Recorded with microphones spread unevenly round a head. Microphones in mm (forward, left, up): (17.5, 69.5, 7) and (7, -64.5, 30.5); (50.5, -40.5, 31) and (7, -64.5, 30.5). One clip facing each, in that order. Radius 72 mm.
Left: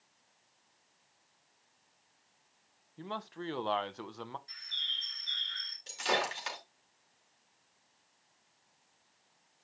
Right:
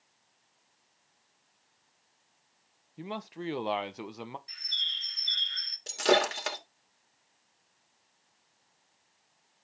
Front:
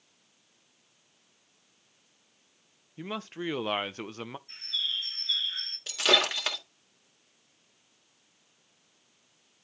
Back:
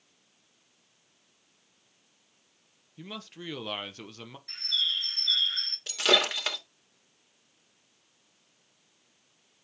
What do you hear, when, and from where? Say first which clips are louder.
3.0 s a man speaking: right 3 dB, front 6 dB; 15° right, 0.8 m
4.5 s a bird: right 3 dB, back 5 dB; 165° right, 3 m
5.9 s breaking glass: right 8 dB, even; 65° right, 2.5 m